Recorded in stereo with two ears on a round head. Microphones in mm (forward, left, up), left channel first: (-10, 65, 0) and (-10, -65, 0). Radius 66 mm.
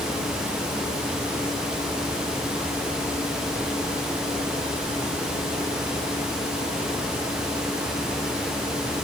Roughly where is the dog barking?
I don't hear a dog barking.